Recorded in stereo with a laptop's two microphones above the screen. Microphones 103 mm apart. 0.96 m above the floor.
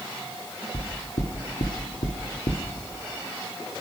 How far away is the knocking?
About 2.5 m.